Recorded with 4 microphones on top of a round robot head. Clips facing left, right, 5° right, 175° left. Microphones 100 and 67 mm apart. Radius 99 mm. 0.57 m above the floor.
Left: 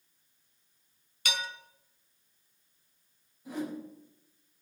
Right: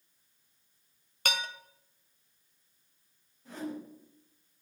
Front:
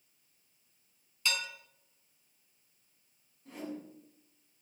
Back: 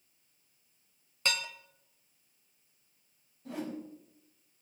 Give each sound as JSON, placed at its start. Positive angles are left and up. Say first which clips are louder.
{"t": 1.2, "sound": "dishes clattering", "louder": "right 1 dB, back 1 dB", "azimuth_deg": -135, "distance_m": 2.0}
{"t": 3.5, "sound": "a whoosh", "louder": "left 3 dB, back 3 dB", "azimuth_deg": 170, "distance_m": 5.0}